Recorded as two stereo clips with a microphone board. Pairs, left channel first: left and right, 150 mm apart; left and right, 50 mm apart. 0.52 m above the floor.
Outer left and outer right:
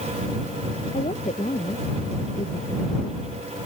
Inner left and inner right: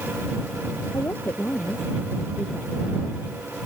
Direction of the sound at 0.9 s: 50° left (ahead or behind).